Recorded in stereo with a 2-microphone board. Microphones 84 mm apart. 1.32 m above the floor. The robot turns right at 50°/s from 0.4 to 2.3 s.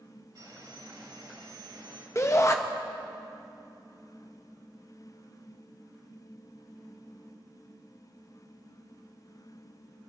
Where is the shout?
35° left (ahead or behind), 0.5 m.